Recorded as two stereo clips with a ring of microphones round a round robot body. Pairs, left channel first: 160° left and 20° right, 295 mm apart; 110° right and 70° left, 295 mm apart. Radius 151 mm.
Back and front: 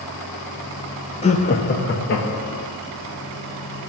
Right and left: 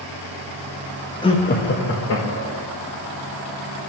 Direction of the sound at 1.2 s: 165° right.